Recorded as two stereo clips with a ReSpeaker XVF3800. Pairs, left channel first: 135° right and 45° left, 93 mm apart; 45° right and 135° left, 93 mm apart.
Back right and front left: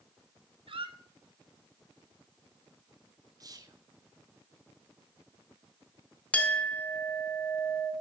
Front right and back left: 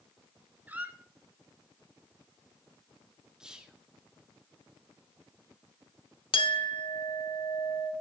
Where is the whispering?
55° left, 0.8 m.